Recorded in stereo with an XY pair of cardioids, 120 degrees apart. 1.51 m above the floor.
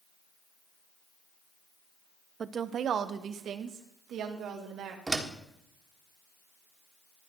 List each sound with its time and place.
2.4 s a woman speaking: 35° right, 0.7 m; by 5.0 s 65° right, 2.5 m
5.1 s a door slam: 20° right, 1.6 m